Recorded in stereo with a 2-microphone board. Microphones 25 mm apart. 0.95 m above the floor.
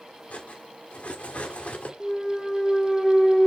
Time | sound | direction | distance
0.3 | cutlery clinking | 65° left (ahead or behind) | 1.4 m
2.0 | a clunk | centre (ahead or behind) | 0.6 m